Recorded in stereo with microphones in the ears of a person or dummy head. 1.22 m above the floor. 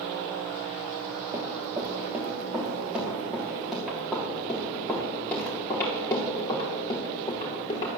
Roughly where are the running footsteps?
Right.